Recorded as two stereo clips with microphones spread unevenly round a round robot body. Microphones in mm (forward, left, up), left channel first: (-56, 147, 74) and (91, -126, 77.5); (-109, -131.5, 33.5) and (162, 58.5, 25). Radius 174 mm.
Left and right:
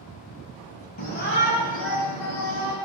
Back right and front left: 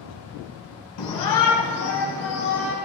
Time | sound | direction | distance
1.0 | a shout | straight behind | 2.5 m